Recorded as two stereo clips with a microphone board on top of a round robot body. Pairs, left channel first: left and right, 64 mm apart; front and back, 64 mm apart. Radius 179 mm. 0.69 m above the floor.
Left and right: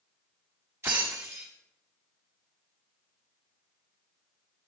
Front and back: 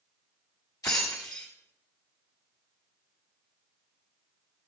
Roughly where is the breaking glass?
Ahead right.